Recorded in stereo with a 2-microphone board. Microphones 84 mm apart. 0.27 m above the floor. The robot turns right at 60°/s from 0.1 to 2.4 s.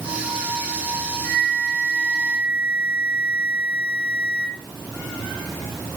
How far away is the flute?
About 9 m.